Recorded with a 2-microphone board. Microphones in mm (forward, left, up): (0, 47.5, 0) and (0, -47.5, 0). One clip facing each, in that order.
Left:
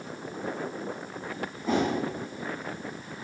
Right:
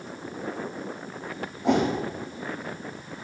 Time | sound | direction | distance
1.6 | a whoosh | 80° right | 2.5 m